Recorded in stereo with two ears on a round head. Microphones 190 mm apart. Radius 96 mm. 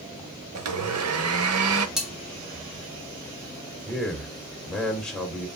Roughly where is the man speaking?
Centre.